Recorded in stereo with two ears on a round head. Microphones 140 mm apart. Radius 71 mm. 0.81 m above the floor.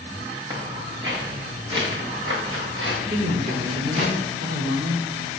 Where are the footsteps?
25° right (ahead or behind), 5 m; by 4.0 s 45° right (ahead or behind), 8 m.